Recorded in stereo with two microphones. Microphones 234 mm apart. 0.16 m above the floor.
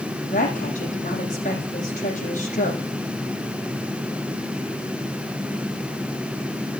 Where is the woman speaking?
30° left (ahead or behind), 7 m.